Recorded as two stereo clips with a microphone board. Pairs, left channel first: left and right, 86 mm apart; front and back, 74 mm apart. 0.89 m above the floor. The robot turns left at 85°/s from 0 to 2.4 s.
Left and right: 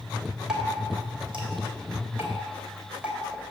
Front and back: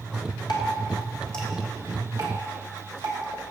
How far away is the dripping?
About 2.5 m.